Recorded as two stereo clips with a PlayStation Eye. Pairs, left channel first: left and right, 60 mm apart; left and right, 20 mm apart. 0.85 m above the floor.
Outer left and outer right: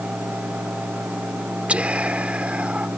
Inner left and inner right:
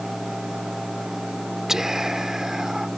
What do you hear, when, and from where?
1.7 s whispering: 20° right (ahead or behind)